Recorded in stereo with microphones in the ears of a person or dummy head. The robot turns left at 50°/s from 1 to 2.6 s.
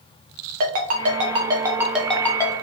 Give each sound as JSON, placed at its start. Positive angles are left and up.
{"t": 0.6, "sound": "a ringtone", "side_deg": -45, "distance_m": 0.6}